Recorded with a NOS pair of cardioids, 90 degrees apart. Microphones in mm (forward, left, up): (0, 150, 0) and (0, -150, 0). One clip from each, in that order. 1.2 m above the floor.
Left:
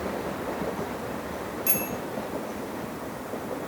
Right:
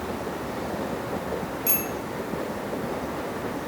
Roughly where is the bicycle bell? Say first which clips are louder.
Even; ahead.